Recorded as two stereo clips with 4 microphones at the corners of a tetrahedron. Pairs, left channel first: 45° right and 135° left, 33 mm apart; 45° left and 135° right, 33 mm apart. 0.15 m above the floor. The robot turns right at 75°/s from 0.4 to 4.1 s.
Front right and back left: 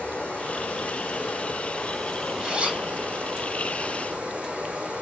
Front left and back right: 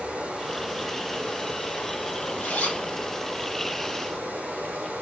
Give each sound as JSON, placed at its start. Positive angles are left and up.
{"t": 0.0, "sound": "running water", "azimuth_deg": -85, "distance_m": 3.5}
{"t": 2.4, "sound": "a zipper", "azimuth_deg": 65, "distance_m": 3.5}